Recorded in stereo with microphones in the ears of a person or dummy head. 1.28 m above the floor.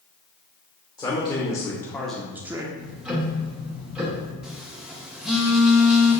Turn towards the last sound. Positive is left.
turn(degrees=0)  # may be behind; listen again after turning